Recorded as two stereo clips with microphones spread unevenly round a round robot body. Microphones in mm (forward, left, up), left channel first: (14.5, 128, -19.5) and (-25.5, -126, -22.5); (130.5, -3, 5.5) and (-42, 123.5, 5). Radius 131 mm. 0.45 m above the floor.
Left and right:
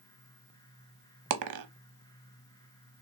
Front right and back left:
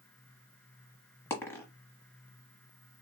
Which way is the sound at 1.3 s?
115° right.